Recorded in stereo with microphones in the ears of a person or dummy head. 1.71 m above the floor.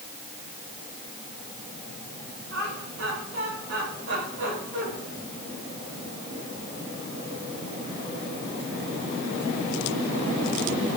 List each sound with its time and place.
2.5 s laughter: 75° right (ahead or behind), 9.5 m; by 4.9 s 65° right (ahead or behind), 9 m